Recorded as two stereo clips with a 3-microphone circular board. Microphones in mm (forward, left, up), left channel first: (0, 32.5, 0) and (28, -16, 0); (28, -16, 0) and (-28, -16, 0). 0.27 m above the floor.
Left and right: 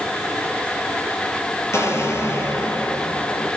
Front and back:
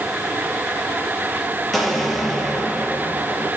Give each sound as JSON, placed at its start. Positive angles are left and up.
{"t": 1.7, "sound": "an explosion", "azimuth_deg": 90, "distance_m": 3.0}